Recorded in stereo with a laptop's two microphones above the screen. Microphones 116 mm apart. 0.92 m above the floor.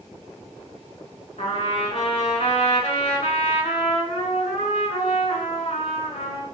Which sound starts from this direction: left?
A trumpet, at 1.4 s.